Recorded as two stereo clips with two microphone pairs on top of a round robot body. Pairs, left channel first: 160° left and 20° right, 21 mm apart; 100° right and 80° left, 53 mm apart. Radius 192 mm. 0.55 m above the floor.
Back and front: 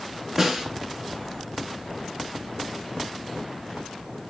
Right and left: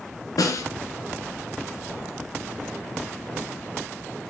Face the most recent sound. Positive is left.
turn(degrees=-90)